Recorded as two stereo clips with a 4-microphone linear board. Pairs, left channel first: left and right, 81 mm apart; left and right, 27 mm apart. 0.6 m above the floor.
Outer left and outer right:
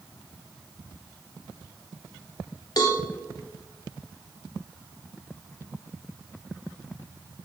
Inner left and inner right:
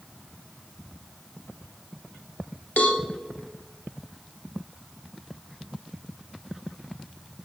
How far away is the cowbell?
About 0.6 m.